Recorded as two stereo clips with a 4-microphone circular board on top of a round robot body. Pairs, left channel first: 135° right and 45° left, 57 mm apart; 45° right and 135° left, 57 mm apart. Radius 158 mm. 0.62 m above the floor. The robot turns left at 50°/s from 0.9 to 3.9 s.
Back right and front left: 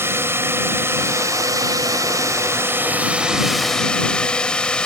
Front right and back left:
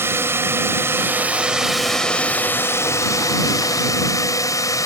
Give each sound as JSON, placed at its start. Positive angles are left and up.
{"t": 0.0, "sound": "a drone", "azimuth_deg": 90}